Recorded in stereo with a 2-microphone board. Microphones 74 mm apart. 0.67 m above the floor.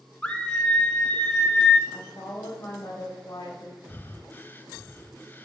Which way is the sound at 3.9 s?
25° left (ahead or behind).